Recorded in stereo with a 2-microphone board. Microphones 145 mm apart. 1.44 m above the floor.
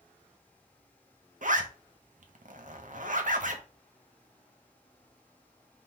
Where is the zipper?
65° right (ahead or behind), 0.7 m.